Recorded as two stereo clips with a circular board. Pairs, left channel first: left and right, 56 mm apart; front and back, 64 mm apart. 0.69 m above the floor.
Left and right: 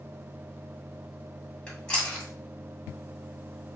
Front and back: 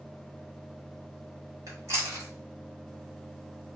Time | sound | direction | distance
1.7 | chewing | 160° left | 1.9 m